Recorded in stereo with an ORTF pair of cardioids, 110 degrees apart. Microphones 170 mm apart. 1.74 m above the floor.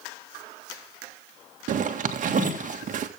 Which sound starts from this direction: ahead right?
A zipper, at 1.7 s.